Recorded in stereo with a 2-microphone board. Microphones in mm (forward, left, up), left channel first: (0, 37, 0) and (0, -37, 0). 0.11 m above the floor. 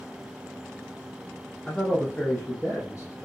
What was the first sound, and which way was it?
A man speaking, 15° left (ahead or behind).